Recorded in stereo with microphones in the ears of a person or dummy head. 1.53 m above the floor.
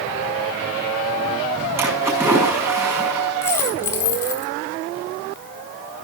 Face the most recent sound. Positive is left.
turn(degrees=15)  # may be behind; listen again after turning